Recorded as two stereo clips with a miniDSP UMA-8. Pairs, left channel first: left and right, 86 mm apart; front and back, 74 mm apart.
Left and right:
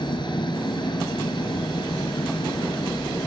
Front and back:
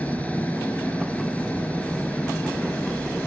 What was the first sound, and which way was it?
An engine running, 70° left.